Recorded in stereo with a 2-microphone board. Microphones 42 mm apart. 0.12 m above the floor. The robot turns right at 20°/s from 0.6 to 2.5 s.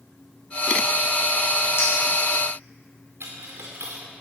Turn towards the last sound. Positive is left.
turn(degrees=-75)  # may be behind; listen again after turning